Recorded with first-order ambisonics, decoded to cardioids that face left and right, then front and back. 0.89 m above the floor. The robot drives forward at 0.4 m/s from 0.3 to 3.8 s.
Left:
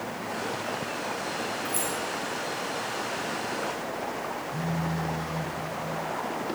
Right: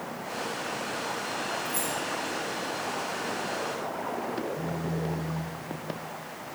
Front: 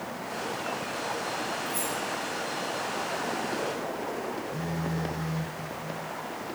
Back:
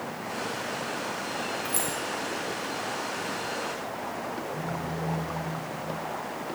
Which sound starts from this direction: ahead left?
A phone buzzing, at 4.5 s.